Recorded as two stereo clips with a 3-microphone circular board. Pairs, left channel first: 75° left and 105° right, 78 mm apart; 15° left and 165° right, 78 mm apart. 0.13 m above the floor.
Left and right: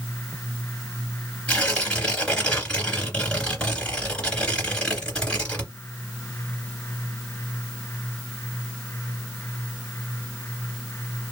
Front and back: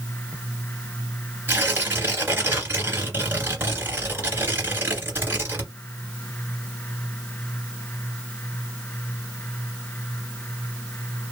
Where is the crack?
No crack in this recording.